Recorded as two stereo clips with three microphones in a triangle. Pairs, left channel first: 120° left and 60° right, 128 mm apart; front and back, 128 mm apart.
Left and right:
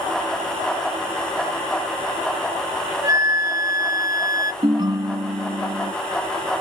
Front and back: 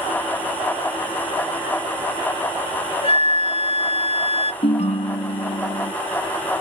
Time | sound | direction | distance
3.0 | a flute | 5° right | 0.5 m
4.6 | a ringtone | 15° right | 0.8 m